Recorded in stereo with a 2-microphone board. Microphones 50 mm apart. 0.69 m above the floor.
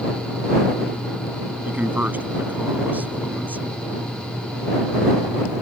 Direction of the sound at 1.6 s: 35° right (ahead or behind).